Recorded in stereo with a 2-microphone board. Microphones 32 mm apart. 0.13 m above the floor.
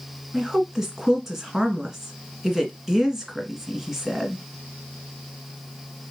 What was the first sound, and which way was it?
A woman speaking, 10° right (ahead or behind).